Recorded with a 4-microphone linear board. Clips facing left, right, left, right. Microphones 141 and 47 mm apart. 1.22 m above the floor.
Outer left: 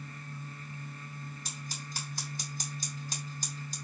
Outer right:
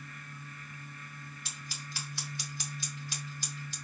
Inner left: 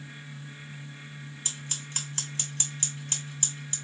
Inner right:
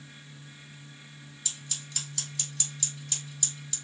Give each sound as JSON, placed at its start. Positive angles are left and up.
{"t": 1.4, "sound": "scissors", "side_deg": 40, "distance_m": 2.0}